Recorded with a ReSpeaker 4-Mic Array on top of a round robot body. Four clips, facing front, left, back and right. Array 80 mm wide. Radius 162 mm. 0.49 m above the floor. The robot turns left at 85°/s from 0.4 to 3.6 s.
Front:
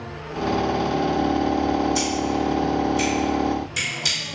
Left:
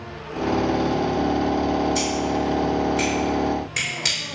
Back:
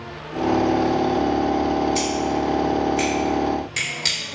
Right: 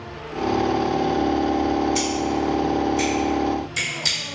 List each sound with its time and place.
1.9 s scissors: 110° right, 1.5 m; by 4.2 s 110° left, 1.5 m